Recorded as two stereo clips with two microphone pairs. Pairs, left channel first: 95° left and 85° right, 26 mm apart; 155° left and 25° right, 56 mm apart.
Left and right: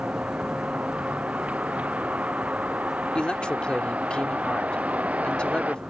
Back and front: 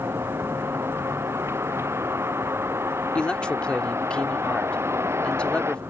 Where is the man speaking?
100° left.